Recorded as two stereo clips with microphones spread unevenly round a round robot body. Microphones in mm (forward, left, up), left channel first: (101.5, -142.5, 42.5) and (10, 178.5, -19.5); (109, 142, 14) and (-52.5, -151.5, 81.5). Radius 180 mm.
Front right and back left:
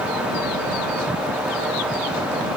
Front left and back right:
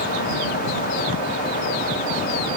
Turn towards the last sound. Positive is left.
No sound to turn to.